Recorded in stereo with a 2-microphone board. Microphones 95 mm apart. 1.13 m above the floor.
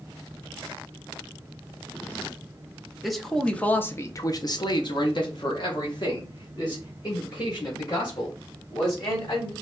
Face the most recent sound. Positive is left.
turn(degrees=45)  # may be behind; listen again after turning